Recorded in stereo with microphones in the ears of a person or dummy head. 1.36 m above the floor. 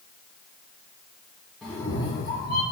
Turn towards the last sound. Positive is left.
turn(degrees=55)  # may be behind; listen again after turning